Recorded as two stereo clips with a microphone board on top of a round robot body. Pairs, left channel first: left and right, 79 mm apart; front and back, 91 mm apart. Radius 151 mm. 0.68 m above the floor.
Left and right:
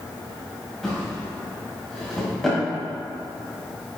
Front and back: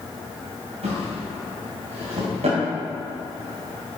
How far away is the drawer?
About 2.0 m.